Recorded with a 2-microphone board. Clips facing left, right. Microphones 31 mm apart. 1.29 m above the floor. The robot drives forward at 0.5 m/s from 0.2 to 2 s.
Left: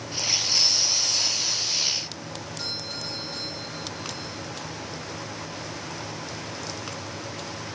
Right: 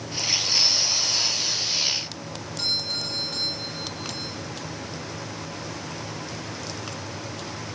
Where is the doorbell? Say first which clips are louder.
Right 8 dB; 75° right (ahead or behind), 3 m.